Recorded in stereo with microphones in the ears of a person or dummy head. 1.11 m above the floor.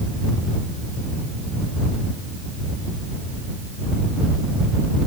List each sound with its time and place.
Only background noise.